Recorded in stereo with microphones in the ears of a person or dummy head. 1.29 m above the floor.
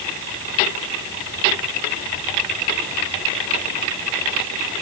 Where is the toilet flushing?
No toilet flushing in this recording.